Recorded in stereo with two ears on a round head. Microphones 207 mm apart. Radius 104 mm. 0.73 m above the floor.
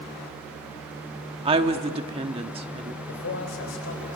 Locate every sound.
1.4 s a woman speaking: 25° right (ahead or behind), 1.2 m
3.1 s a man speaking: 60° left (ahead or behind), 3.5 m